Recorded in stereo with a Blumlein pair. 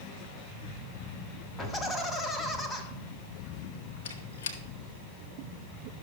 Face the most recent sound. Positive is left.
turn(degrees=60)